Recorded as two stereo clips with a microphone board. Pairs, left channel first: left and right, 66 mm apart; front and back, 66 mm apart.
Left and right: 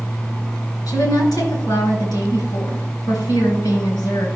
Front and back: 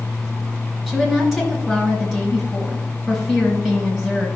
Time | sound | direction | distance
0.9 | a woman speaking | 100° left | 4 m